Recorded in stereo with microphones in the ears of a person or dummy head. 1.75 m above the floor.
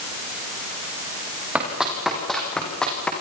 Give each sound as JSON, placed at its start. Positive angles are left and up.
{"t": 1.6, "sound": "running footsteps", "side_deg": -15, "distance_m": 5.5}